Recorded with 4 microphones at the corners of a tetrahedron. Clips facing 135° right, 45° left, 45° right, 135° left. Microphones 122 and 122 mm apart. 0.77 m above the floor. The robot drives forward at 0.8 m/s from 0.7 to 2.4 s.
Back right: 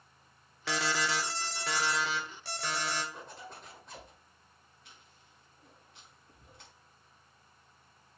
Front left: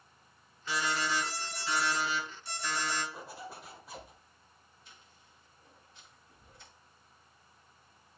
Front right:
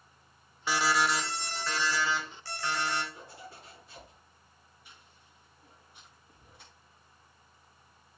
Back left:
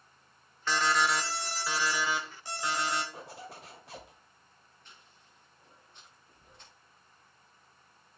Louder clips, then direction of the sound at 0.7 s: Back right 1 dB, even; 125° right.